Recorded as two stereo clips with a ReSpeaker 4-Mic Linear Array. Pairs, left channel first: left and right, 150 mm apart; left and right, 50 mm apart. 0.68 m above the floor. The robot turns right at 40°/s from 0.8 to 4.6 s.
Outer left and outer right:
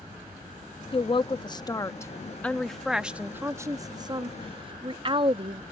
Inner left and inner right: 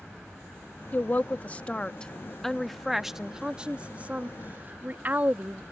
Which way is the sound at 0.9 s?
35° left (ahead or behind).